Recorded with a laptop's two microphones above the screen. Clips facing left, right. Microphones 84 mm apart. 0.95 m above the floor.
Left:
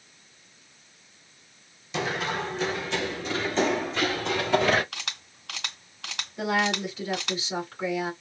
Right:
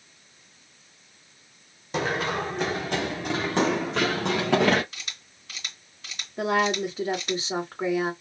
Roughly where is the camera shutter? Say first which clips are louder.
Left 4 dB; left.